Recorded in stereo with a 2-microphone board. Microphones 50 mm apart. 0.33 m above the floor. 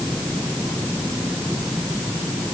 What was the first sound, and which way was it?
Only background noise.